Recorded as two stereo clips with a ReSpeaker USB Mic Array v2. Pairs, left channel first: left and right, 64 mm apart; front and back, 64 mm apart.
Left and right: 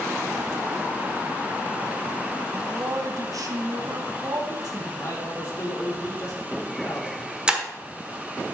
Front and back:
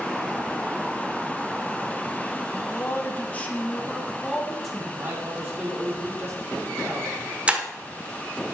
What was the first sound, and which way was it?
A man speaking, 45° right.